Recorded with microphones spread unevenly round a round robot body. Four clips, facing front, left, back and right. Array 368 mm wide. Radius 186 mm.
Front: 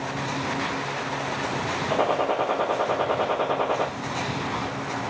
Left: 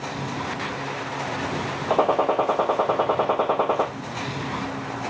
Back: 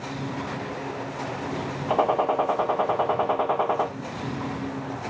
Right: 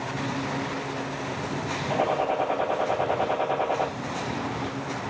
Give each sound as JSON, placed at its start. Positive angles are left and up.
{"t": 1.9, "sound": "a gunshot", "azimuth_deg": 95, "distance_m": 0.7}